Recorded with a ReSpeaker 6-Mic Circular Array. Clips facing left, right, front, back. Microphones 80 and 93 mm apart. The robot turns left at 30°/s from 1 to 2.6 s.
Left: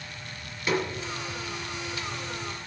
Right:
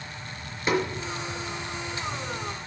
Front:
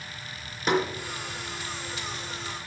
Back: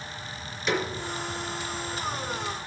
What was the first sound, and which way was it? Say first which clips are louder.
A snare drum: right 2 dB, front 3 dB; 30° right.